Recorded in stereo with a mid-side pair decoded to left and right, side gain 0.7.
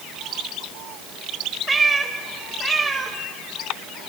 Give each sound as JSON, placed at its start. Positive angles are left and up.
{"t": 1.7, "sound": "a cat meowing", "azimuth_deg": -20, "distance_m": 2.5}